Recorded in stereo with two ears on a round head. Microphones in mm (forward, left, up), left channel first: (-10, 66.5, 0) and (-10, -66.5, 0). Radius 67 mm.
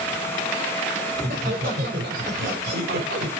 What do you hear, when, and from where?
1.1 s laughter: 55° right (ahead or behind), 5 m; by 3.3 s 70° right (ahead or behind), 4 m